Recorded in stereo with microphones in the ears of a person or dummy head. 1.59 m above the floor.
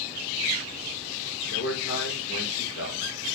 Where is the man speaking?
70° left (ahead or behind), 6 m.